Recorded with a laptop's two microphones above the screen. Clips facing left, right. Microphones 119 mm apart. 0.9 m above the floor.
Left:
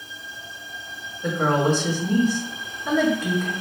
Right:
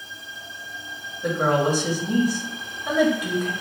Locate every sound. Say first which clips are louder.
1.2 s a woman speaking: even; 10° right (ahead or behind), 1.2 m